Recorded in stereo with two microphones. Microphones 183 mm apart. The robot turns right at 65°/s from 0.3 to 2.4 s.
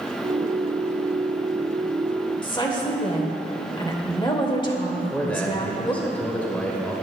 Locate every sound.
2.4 s a woman speaking: 25° left (ahead or behind), 1.3 m
5.0 s a man speaking: 10° left (ahead or behind), 1.2 m